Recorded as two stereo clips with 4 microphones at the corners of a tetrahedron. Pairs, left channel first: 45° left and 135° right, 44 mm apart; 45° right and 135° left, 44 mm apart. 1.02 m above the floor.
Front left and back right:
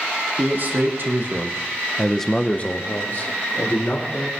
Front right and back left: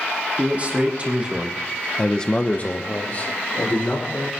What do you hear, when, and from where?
0.4 s a man speaking: 170° right, 2.5 m; by 4.3 s 5° left, 3.5 m